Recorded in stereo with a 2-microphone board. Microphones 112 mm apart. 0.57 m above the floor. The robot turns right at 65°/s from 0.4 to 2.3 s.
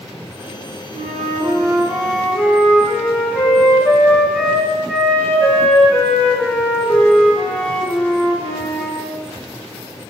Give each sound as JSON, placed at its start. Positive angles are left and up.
{"t": 0.9, "sound": "a flute", "azimuth_deg": -75, "distance_m": 1.9}